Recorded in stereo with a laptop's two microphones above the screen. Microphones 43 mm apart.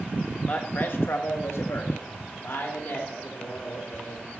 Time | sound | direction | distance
0.5 | a man speaking | 35° left (ahead or behind) | 1.2 m